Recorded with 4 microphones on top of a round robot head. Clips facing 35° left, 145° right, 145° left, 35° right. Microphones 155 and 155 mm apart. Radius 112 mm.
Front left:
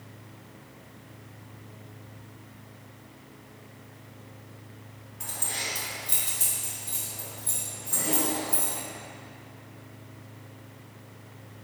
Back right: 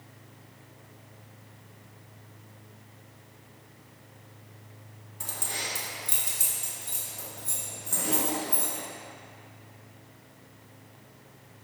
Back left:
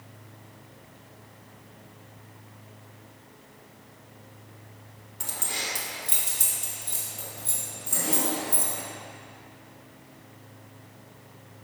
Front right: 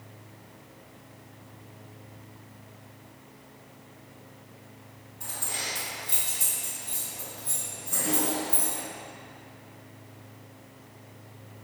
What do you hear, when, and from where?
5.2 s keys jangling: 155° left, 1.2 m; by 8.8 s 165° right, 5.5 m